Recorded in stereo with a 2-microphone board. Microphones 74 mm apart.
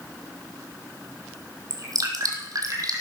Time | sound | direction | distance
1.7 | dripping | 55° right (ahead or behind) | 3 m